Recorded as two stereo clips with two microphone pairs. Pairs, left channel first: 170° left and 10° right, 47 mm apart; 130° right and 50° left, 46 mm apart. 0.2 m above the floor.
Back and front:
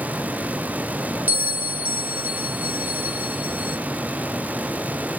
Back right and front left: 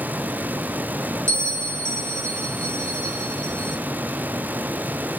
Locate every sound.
1.3 s a bell: 35° left, 0.9 m